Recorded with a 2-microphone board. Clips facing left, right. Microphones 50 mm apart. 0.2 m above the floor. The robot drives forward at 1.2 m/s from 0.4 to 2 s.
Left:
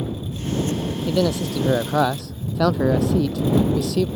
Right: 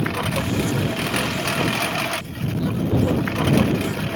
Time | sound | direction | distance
0.0 | a lawn mower | 90° right | ?
1.1 | a man speaking | 80° left | ?